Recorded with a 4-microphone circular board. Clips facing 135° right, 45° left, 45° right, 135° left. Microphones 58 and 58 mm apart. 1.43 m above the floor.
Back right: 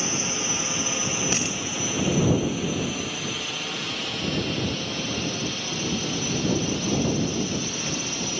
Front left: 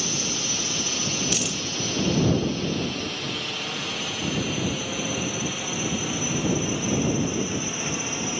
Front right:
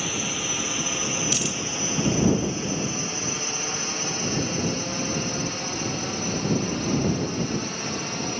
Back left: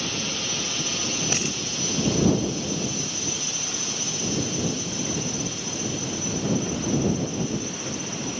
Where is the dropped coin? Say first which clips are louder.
Back right 1 dB, even; straight behind.